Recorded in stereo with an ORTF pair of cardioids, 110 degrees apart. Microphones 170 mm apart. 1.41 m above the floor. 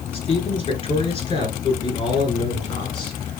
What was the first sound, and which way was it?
A man speaking, 35° left.